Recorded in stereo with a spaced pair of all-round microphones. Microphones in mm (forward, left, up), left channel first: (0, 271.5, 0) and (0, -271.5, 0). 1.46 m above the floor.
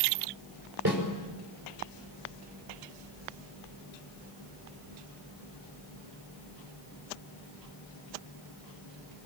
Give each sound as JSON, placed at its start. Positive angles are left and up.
{"t": 0.8, "sound": "a snare drum", "side_deg": -40, "distance_m": 5.5}